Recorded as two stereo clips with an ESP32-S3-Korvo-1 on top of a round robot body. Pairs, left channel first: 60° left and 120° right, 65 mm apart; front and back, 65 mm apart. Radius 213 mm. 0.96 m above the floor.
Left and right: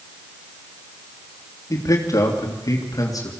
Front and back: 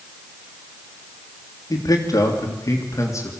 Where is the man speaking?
25° left, 3 m; by 3.3 s 40° left, 2.5 m.